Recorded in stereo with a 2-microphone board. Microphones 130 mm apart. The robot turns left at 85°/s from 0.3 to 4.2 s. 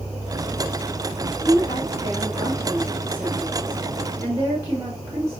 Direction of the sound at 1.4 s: 10° left (ahead or behind).